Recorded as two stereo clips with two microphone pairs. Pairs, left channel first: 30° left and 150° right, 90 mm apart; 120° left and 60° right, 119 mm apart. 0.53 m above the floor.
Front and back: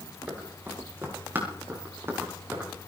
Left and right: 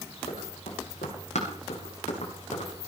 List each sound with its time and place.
0.3 s running footsteps: 140° left, 9 m; by 2.7 s 145° left, 8.5 m